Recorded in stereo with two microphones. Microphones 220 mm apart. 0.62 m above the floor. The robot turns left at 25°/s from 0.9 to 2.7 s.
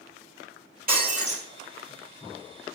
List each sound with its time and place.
0.9 s breaking glass: 40° right (ahead or behind), 1.7 m; by 1.4 s 25° right (ahead or behind), 1.7 m